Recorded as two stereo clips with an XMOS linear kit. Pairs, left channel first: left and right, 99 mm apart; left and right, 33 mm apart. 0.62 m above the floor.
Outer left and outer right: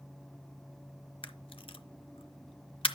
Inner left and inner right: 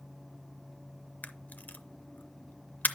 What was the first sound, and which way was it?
A camera shutter, 70° left (ahead or behind).